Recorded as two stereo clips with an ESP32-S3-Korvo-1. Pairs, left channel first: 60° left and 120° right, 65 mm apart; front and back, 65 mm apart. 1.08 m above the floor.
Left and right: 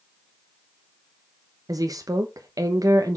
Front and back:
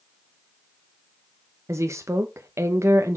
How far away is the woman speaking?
About 0.8 m.